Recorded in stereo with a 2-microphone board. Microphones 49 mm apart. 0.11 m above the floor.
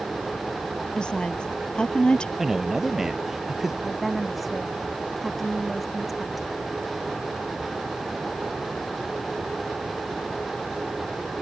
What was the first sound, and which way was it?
A woman speaking, 20° left (ahead or behind).